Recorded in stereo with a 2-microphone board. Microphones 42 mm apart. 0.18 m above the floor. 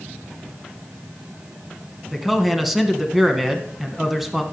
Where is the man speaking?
5° right (ahead or behind), 1.3 m.